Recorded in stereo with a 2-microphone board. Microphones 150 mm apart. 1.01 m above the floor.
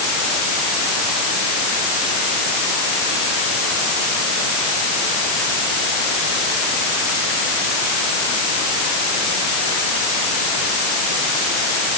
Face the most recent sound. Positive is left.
No sound to turn to.